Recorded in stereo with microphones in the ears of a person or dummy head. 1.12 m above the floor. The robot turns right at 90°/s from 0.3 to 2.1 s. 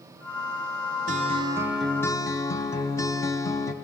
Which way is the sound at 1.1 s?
65° right.